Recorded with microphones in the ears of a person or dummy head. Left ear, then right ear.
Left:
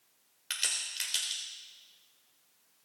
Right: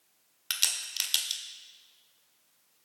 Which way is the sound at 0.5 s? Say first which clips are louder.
Right 3 dB; 25° right (ahead or behind).